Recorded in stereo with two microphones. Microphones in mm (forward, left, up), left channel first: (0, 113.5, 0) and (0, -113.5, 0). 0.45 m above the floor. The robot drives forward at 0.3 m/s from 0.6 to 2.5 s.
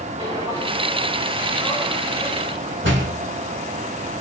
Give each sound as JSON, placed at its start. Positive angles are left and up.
{"t": 0.2, "sound": "footsteps", "side_deg": -20, "distance_m": 3.0}
{"t": 2.8, "sound": "a door slam", "side_deg": -60, "distance_m": 3.5}